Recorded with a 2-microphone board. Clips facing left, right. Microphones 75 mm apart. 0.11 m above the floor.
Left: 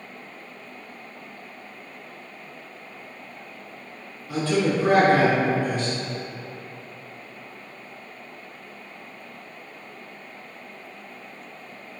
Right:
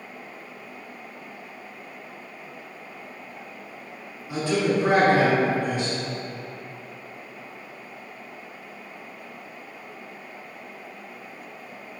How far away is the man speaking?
About 1.5 m.